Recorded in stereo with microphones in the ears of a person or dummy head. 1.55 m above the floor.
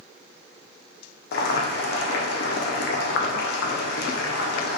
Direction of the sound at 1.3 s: 65° left (ahead or behind).